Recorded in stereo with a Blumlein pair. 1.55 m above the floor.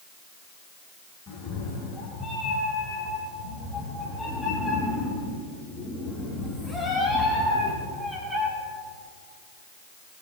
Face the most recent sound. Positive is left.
turn(degrees=-10)